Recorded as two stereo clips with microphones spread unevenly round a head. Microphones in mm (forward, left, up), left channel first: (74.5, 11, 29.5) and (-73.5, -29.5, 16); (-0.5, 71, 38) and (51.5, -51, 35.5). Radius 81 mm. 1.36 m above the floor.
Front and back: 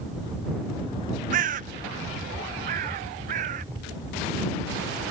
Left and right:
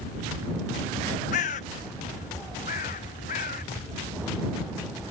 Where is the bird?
155° left.